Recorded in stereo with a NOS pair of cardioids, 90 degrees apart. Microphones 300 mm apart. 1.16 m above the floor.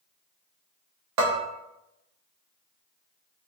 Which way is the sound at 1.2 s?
60° right.